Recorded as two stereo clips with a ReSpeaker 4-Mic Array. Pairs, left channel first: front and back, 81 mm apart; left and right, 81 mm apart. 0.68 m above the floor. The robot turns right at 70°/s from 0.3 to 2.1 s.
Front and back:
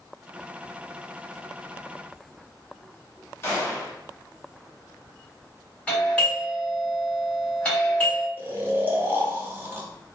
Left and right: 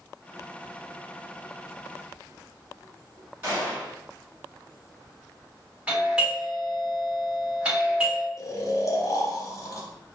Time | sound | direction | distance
3.4 | a gunshot | 40° right | 1.5 m
5.9 | a doorbell | 40° right | 1.4 m
8.4 | snoring | 125° left | 0.6 m